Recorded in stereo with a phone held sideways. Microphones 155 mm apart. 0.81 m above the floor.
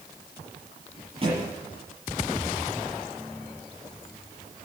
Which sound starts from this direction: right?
A thud, at 1.2 s.